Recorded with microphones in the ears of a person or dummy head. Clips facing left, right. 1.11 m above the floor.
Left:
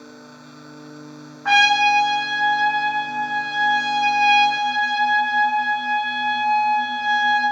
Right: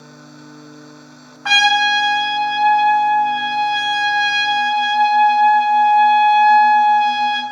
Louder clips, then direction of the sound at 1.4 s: Even; 55° right (ahead or behind).